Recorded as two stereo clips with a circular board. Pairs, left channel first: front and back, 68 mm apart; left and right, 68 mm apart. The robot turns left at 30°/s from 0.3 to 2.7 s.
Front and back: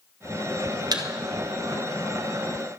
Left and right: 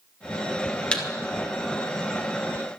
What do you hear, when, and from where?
0.9 s a thud: 165° left, 1.7 m; by 1.0 s 160° left, 1.7 m